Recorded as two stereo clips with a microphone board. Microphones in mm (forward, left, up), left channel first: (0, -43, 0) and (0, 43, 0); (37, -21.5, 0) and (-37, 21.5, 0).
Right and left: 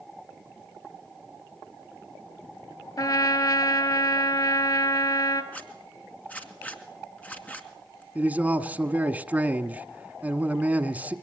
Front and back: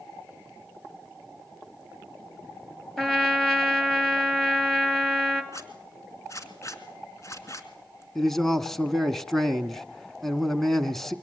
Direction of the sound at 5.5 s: 30° right.